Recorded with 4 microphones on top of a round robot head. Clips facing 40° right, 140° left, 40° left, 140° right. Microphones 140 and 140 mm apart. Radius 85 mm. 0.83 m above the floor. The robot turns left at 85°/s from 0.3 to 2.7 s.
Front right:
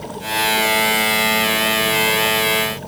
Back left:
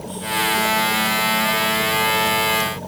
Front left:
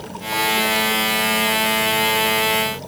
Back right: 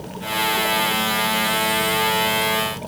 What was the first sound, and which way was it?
Only background noise.